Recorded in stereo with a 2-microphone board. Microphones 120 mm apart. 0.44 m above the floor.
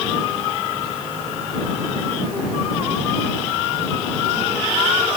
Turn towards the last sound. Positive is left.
No sound to turn to.